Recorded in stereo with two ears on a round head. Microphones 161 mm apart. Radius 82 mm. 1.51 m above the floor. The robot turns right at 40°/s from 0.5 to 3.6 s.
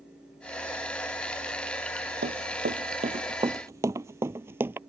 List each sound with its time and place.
2.2 s running footsteps: 65° right (ahead or behind); by 4.8 s 10° right (ahead or behind)